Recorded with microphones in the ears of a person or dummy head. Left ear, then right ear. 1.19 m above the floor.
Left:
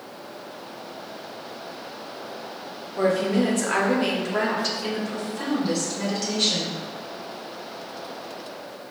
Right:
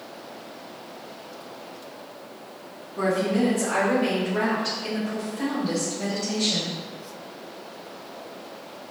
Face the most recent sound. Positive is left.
turn(degrees=50)  # may be behind; listen again after turning